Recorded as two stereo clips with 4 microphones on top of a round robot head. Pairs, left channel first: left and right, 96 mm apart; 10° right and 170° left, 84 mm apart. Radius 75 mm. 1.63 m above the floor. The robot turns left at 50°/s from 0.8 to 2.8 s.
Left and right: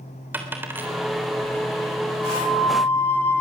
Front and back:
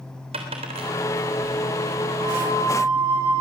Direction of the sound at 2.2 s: 165° right.